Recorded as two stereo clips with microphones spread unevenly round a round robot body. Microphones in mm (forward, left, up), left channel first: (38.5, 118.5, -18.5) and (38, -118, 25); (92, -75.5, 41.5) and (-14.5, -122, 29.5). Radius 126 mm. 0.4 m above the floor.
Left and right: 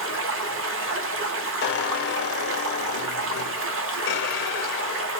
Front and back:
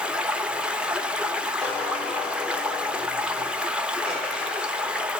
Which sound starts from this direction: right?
Running water, at 0.0 s.